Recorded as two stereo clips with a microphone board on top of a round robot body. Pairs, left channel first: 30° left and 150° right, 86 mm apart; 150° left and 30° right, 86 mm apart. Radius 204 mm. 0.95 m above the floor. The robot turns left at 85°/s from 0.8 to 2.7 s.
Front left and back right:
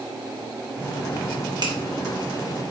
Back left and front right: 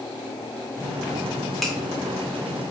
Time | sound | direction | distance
1.6 | a finger snap | 120° right | 1.1 m